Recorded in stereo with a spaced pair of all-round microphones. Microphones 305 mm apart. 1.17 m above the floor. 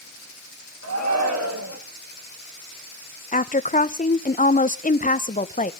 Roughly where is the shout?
Right.